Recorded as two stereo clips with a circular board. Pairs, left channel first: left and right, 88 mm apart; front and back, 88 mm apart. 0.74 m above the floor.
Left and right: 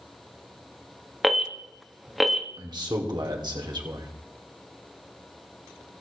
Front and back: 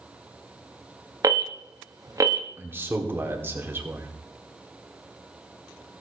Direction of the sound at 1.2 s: 175° right.